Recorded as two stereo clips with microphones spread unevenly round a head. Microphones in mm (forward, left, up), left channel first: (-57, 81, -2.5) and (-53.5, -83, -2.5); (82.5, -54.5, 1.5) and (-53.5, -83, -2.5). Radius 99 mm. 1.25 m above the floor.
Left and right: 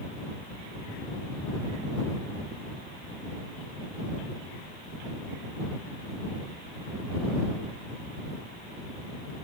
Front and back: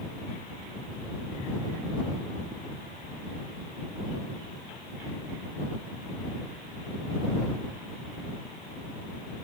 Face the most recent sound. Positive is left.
No sound to turn to.